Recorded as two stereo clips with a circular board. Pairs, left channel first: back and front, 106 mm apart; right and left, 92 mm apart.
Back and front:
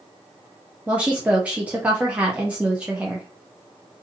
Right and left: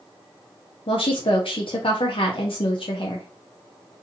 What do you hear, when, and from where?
0.9 s a woman speaking: 80° right, 0.5 m